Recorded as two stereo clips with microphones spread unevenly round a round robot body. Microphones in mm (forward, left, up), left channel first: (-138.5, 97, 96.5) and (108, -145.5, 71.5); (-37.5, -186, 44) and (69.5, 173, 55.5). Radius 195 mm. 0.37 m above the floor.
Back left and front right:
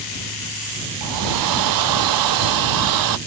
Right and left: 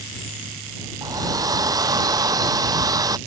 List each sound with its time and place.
1.0 s a hair dryer: 10° right